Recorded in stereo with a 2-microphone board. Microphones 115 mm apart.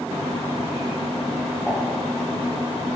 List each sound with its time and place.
1.7 s dishes clattering: centre (ahead or behind), 6 m